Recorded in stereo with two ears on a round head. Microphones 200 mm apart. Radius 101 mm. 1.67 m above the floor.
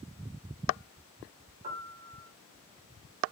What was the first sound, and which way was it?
A piano, 30° right (ahead or behind).